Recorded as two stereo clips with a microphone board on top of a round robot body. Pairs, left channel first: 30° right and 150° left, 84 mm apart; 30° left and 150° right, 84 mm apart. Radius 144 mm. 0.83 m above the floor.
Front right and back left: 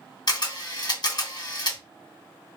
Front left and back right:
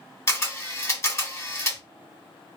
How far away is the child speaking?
I don't hear a child speaking.